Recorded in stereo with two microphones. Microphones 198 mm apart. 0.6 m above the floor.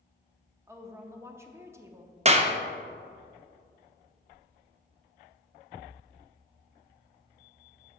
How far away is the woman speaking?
About 0.6 m.